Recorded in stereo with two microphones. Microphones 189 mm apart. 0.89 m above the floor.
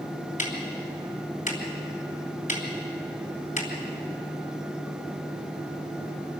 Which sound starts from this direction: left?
Ticking, at 0.4 s.